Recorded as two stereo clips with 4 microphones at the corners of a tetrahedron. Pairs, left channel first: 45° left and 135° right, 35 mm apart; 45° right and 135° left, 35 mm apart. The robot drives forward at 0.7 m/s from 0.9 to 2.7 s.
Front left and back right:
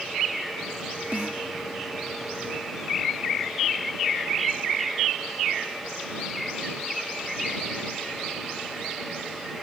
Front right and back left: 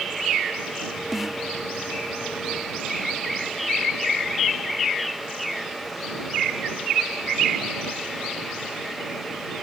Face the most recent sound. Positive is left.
turn(degrees=-160)